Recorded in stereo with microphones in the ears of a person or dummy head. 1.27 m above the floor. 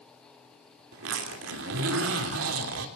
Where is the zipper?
75° right (ahead or behind), 3.5 m.